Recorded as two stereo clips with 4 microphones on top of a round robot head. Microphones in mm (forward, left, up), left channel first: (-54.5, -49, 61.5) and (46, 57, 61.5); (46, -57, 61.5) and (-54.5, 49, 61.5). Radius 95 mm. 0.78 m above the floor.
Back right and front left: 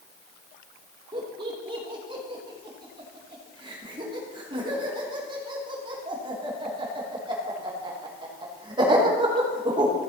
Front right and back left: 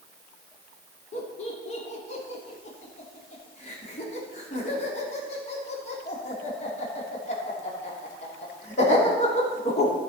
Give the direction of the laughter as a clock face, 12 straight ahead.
12 o'clock.